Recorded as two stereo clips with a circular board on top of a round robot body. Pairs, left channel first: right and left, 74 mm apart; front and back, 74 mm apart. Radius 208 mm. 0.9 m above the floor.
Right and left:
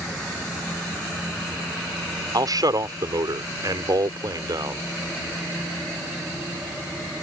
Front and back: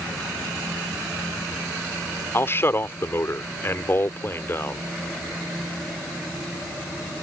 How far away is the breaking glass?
No breaking glass in this recording.